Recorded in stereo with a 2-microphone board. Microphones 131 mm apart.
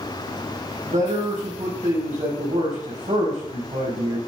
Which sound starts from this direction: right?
A man speaking, at 0.8 s.